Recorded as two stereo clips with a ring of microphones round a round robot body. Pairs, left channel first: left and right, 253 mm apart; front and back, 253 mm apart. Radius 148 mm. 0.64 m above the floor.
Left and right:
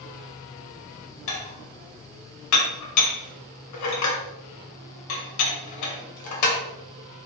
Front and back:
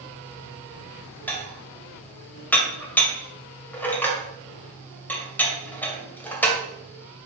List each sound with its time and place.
1.3 s dishes clattering: 85° left, 2.0 m